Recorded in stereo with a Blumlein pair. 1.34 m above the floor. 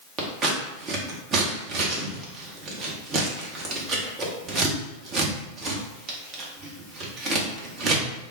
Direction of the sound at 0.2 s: 30° right.